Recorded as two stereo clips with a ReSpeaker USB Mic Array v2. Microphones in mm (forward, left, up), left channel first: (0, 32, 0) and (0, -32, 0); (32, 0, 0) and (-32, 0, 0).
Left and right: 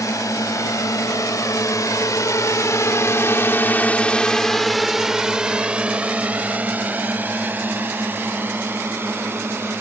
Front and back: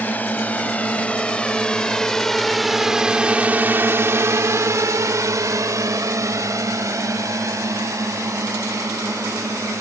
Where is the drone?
65° left; by 9.8 s 140° right.